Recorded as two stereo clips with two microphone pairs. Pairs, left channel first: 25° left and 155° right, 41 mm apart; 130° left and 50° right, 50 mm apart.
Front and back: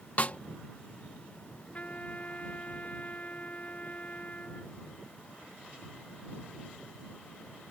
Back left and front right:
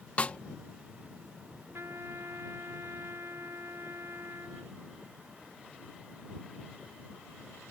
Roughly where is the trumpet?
Ahead right.